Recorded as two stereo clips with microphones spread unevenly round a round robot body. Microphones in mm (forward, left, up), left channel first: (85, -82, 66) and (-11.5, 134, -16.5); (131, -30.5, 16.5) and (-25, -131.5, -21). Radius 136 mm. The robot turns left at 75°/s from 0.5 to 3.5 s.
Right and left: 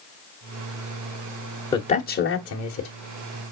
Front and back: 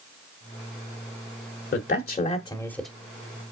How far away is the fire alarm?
No fire alarm in this recording.